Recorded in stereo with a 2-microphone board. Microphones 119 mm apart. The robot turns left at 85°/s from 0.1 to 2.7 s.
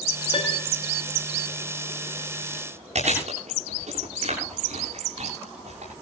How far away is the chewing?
About 10 m.